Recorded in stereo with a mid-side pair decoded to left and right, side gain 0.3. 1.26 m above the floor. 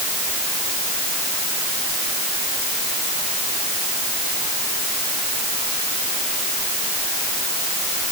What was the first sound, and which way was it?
Only background noise.